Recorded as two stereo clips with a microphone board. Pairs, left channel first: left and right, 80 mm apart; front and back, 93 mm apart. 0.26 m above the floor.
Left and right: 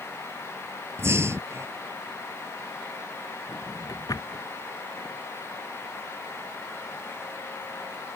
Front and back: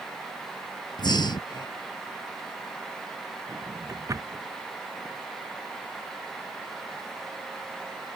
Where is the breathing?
35° right.